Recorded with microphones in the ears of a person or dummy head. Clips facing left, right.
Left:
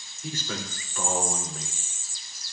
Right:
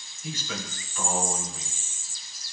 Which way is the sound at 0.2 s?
40° left (ahead or behind).